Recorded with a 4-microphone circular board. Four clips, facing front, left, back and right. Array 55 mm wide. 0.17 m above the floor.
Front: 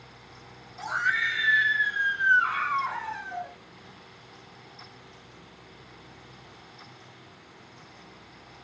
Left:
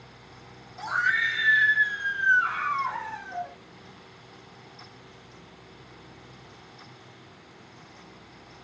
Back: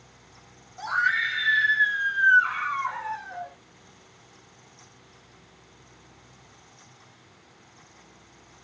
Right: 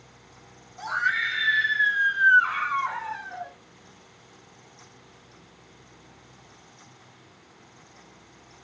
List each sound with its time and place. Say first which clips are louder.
0.8 s a scream: left 1 dB, back 2 dB; 175° right, 1.4 m; by 3.5 s 65° right, 2 m